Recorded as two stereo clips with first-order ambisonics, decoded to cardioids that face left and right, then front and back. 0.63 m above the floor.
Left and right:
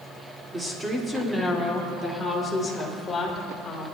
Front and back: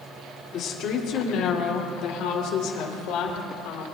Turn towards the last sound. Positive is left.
turn(degrees=15)